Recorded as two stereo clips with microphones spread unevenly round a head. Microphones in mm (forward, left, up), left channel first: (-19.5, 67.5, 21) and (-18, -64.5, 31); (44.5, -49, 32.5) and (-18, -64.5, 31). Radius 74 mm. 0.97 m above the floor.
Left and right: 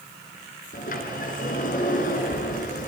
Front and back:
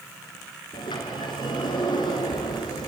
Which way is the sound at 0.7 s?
55° left.